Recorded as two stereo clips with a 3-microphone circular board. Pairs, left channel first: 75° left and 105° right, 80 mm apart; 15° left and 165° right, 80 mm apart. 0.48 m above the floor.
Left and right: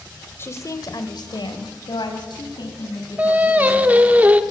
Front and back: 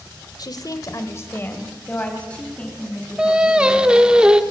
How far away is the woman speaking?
About 1.8 m.